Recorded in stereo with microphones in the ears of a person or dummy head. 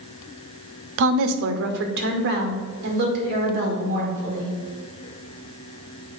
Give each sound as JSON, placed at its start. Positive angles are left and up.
{"t": 1.0, "sound": "a woman speaking", "side_deg": -65, "distance_m": 0.6}